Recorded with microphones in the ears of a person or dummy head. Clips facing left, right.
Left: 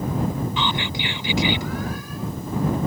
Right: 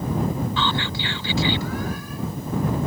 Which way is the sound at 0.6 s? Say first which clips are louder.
Even; 15° left (ahead or behind).